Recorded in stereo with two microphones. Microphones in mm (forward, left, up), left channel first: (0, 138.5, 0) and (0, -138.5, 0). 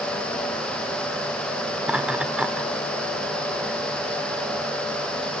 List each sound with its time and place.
1.8 s laughter: 5° right (ahead or behind), 1.1 m